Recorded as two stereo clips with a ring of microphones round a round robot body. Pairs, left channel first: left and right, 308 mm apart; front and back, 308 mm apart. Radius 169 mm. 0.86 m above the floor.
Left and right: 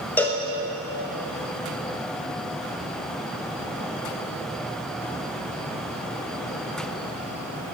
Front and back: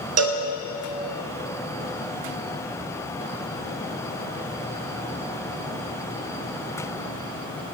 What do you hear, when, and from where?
0.2 s a cowbell: 175° left, 0.6 m